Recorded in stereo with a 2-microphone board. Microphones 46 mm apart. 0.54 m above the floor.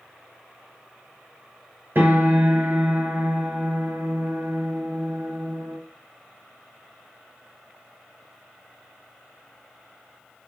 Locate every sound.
1.9 s a piano: 50° right (ahead or behind), 2.5 m